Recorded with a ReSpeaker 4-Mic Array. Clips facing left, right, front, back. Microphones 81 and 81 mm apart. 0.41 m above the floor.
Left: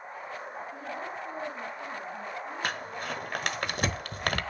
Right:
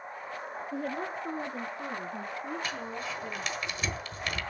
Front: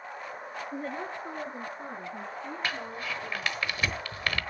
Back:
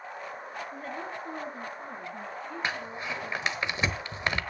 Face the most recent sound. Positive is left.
turn(degrees=115)